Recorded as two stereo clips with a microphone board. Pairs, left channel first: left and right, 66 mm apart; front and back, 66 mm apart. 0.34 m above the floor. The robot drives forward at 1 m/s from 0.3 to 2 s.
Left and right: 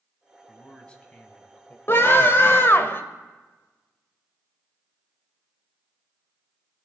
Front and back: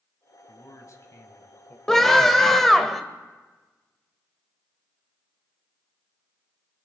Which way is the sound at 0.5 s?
15° left.